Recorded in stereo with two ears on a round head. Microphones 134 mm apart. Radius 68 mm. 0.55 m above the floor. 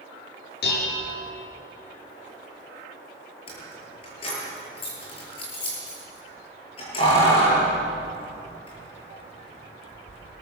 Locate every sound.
0.6 s dishes clattering: 70° left (ahead or behind), 6.5 m
3.5 s keys jangling: 35° left (ahead or behind), 8 m